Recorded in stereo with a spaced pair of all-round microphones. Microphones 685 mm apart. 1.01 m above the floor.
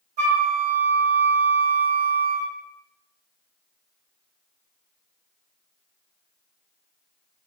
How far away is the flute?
About 1.7 m.